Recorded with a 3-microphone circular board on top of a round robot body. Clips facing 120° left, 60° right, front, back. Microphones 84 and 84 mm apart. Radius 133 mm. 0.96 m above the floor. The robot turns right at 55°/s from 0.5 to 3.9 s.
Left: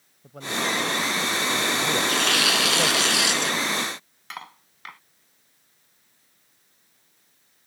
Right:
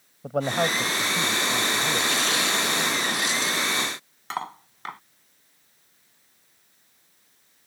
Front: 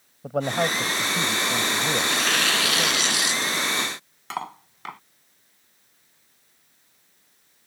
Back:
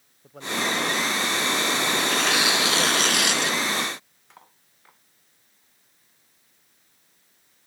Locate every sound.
0.2 s a man speaking: 30° right; by 3.0 s 110° left
2.0 s tearing paper: 75° left; by 3.6 s 165° left
4.3 s cutlery clinking: straight ahead